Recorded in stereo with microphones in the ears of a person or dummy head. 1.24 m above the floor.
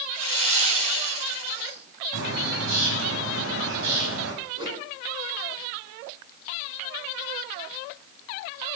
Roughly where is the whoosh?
Right.